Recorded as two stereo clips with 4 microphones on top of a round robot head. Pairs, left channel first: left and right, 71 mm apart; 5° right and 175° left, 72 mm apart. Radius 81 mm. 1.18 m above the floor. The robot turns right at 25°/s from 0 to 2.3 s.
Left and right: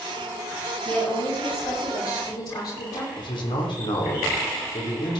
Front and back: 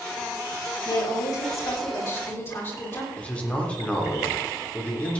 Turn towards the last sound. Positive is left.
turn(degrees=70)